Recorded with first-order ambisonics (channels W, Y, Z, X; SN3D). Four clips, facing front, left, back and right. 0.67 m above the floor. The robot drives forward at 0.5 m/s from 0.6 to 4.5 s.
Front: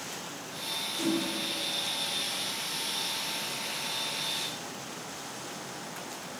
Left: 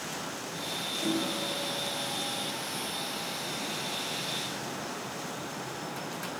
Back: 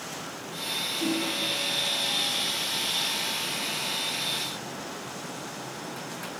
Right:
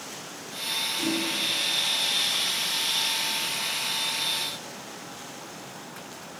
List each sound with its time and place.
1.0 s a whoosh: 45° right, 7 m